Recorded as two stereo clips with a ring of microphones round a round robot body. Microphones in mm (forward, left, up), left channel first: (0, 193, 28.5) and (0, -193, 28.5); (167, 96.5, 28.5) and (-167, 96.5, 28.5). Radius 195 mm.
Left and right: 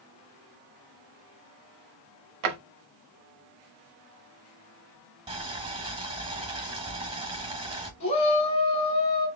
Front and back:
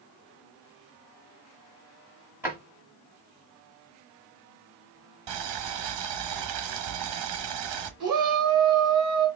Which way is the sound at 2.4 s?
95° right.